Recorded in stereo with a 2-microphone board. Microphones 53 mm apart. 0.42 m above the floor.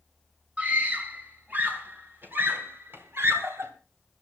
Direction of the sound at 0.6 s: 30° right (ahead or behind).